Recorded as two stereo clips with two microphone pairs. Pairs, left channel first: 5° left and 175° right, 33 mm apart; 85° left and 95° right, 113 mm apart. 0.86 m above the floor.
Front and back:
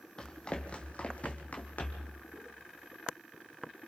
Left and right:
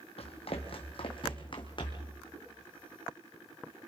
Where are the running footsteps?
65° left, 1.8 m; by 2.1 s 40° left, 2.5 m.